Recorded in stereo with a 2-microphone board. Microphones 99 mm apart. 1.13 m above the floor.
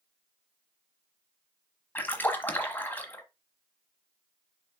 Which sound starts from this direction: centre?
A splash, at 1.9 s.